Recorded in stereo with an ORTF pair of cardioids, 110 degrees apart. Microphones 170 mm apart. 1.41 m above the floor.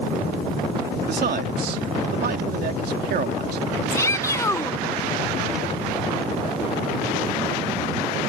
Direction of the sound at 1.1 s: 65° right.